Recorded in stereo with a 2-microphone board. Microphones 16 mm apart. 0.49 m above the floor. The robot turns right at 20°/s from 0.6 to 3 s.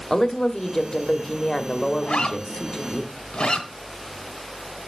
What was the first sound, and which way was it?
A woman speaking, 30° left (ahead or behind).